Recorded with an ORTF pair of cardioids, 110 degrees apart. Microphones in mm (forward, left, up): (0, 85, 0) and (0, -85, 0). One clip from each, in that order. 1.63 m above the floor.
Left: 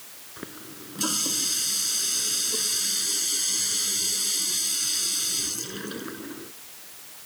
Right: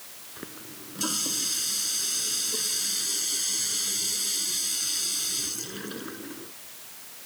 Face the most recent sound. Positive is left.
turn(degrees=15)